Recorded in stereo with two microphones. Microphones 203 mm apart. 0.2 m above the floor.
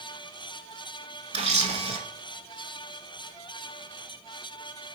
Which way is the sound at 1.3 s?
35° right (ahead or behind).